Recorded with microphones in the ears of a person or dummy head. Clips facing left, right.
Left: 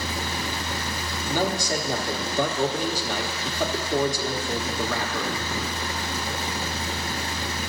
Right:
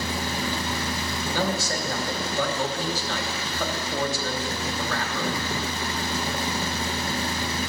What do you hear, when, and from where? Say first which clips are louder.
0.0 s a fan: right 2 dB; 35° right (ahead or behind), 1.1 m
1.3 s a man speaking: left 2 dB; 5° left (ahead or behind), 0.9 m